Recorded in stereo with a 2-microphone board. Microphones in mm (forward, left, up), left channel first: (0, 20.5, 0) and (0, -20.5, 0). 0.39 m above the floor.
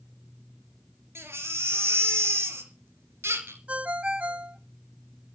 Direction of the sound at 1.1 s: 85° right.